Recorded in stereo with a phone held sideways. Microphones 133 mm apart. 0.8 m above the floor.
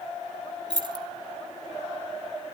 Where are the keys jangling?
35° right (ahead or behind), 0.8 m.